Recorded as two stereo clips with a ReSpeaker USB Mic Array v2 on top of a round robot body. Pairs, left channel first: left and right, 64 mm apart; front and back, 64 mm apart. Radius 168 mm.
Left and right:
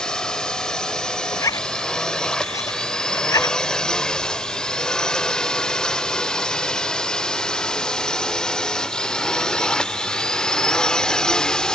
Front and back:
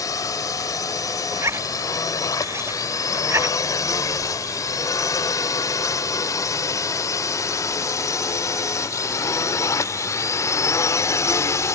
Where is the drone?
15° left.